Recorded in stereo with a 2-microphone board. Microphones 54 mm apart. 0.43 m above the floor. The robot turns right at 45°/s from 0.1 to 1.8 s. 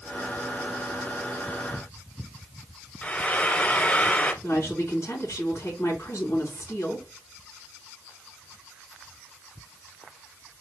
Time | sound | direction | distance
3.0 | frying | 30° left (ahead or behind) | 1.2 m
4.4 | a woman speaking | 50° left (ahead or behind) | 3 m